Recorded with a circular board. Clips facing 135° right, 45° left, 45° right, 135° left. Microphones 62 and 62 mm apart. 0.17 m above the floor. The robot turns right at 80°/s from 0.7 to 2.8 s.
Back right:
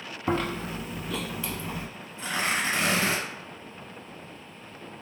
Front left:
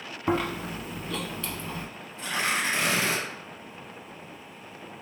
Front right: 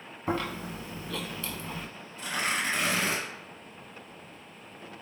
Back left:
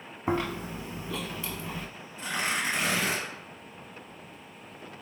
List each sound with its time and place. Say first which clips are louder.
0.3 s chewing: front left 1 dB, back left 2 dB; 115° left, 0.5 m; by 1.9 s 155° right, 0.5 m
2.2 s tearing paper: even, even; 170° left, 1.8 m; by 3.2 s 140° right, 1.8 m